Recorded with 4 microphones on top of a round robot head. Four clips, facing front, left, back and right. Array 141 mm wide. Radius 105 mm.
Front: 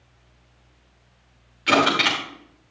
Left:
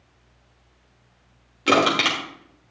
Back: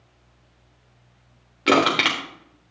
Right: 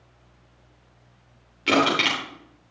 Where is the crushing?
160° left, 3.5 m.